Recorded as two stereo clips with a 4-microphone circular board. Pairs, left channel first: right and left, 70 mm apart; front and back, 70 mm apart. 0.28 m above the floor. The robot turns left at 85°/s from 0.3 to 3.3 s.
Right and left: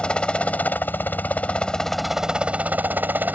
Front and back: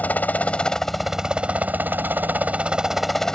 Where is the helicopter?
35° right; by 3.4 s 70° left.